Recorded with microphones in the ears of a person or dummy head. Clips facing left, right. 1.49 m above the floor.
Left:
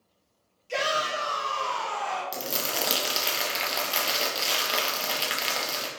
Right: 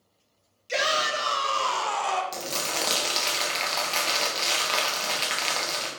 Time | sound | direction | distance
0.7 | a shout | 25° right (ahead or behind) | 1.1 m
2.3 | crumpling | 5° left (ahead or behind) | 0.6 m